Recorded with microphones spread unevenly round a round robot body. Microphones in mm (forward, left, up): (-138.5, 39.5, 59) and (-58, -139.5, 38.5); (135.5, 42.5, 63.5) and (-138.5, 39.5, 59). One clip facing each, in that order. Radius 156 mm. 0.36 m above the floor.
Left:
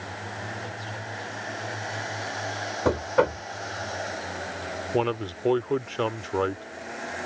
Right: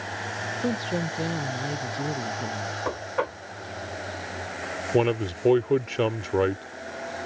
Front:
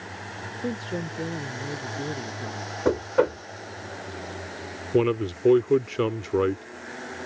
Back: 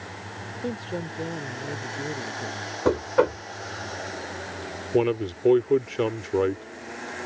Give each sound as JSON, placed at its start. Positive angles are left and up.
{"t": 0.6, "sound": "a woman speaking", "azimuth_deg": -80}
{"t": 2.9, "sound": "knocking", "azimuth_deg": 95}
{"t": 4.9, "sound": "a man speaking", "azimuth_deg": -60}